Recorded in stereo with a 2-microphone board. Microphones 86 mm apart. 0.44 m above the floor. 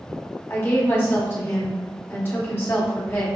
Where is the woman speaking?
25° left (ahead or behind), 1.2 m.